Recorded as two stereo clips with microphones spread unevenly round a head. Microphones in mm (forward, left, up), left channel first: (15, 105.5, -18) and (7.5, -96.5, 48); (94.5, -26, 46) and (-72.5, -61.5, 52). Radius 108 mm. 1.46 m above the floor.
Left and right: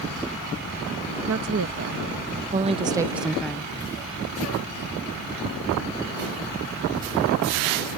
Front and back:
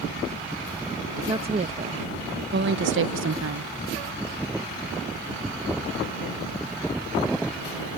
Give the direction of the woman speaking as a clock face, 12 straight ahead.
4 o'clock.